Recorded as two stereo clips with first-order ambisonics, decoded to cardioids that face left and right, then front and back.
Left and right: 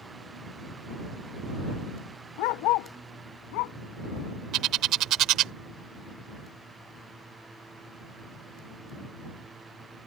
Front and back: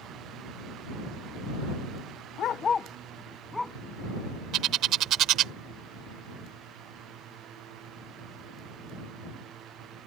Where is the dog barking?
55° left; by 3.8 s 85° left.